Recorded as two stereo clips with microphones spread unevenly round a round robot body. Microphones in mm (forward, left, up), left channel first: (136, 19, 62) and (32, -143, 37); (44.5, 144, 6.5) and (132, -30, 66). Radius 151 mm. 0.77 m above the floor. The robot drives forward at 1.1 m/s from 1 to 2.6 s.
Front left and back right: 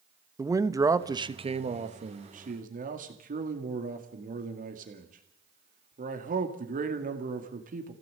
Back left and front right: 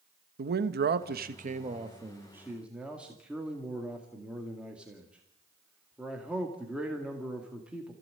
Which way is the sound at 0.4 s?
75° right.